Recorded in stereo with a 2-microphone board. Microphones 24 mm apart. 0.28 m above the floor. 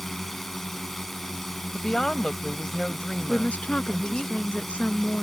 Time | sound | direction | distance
0.0 | a drone | 15° left (ahead or behind) | ?
1.7 | a woman speaking | 35° left (ahead or behind) | ?
3.3 | a woman speaking | 65° left (ahead or behind) | ?